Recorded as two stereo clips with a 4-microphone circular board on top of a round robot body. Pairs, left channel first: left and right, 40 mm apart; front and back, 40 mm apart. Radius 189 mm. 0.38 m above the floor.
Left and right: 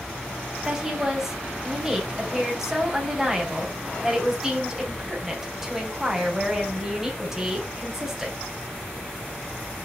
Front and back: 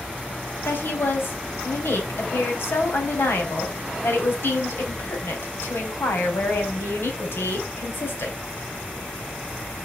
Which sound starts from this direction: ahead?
A woman speaking, at 0.7 s.